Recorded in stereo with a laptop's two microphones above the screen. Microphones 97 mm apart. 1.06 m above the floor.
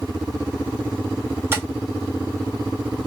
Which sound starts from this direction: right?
Tapping, at 1.5 s.